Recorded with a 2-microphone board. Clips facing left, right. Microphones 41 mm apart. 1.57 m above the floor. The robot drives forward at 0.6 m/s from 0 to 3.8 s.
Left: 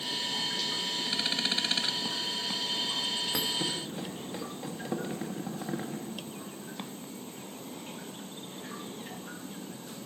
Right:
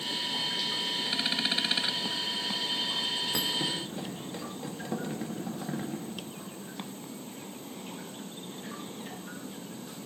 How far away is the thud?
About 1.1 m.